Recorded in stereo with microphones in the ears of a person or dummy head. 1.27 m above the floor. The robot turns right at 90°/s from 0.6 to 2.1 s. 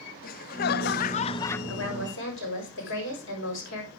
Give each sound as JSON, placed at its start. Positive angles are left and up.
{"t": 0.2, "sound": "laughter", "azimuth_deg": 70, "distance_m": 0.5}
{"t": 1.7, "sound": "a woman speaking", "azimuth_deg": 70, "distance_m": 6.5}